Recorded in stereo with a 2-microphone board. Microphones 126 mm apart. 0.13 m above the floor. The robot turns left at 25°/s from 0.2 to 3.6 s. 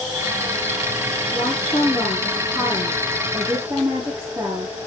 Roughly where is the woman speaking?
Ahead left.